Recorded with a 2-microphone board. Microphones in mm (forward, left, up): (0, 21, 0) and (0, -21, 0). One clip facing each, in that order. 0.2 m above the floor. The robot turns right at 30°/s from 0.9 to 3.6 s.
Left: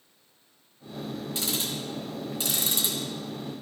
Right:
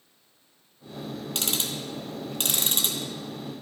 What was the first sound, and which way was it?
Ticking, 75° right (ahead or behind).